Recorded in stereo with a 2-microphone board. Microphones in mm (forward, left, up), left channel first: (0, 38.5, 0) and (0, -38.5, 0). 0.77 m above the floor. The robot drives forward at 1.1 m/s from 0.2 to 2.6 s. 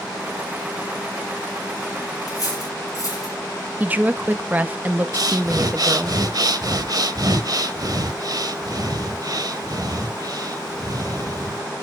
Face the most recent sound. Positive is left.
turn(degrees=-55)  # may be behind; listen again after turning